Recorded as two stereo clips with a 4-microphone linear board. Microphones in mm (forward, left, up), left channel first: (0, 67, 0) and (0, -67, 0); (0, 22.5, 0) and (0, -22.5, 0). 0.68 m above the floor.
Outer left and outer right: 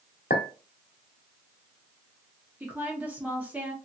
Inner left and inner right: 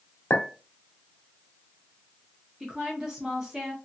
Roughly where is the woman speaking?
Centre.